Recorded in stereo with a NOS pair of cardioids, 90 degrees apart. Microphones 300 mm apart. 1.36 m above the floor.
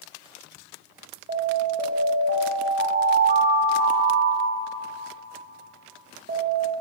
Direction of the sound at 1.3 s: 35° right.